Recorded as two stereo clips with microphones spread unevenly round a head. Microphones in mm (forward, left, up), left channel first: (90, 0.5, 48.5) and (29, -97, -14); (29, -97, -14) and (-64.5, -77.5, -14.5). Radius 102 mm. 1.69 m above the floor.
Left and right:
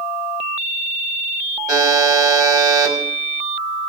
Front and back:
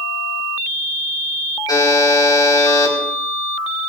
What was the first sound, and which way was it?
A buzzer, 60° right.